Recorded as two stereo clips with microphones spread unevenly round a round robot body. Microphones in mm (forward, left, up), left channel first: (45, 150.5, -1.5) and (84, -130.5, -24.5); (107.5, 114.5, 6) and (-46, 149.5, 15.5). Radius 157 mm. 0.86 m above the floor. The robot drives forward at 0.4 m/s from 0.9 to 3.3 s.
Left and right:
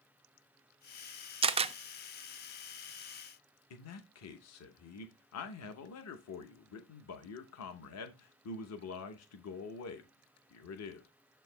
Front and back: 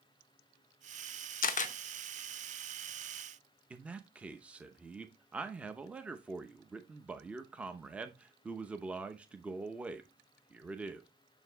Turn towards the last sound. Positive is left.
turn(degrees=85)